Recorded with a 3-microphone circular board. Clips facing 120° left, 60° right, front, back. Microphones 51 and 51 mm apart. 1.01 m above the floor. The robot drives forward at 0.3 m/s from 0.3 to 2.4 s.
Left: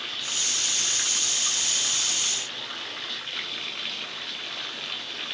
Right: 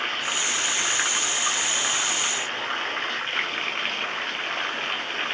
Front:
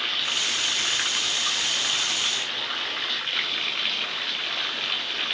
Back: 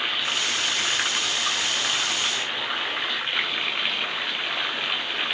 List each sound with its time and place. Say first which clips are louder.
0.0 s running water: right 7 dB, back 2 dB; 105° right